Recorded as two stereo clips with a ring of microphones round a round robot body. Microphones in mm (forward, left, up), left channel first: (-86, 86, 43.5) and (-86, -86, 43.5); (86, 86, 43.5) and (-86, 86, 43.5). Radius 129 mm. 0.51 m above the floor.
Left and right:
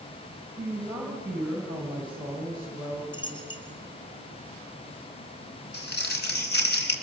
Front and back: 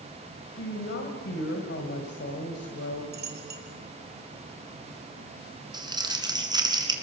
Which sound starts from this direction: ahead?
A woman speaking, at 0.6 s.